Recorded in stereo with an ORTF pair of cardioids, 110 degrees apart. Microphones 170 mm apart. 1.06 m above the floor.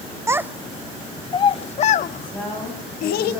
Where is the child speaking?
15° right, 0.8 m; by 3.3 s 70° left, 1.5 m.